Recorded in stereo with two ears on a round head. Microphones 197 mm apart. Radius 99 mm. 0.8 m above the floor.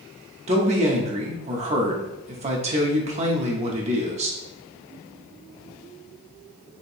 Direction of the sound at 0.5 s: 30° right (ahead or behind).